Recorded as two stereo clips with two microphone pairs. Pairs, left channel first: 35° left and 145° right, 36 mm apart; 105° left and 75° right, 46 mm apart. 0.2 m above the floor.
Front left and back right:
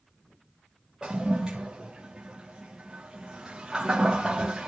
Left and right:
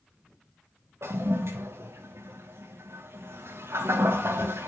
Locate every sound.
1.0 s a toilet flushing: 70° right, 3.5 m